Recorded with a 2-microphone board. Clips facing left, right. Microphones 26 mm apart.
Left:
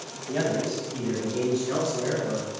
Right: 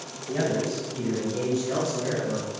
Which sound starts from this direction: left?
A man speaking, at 0.3 s.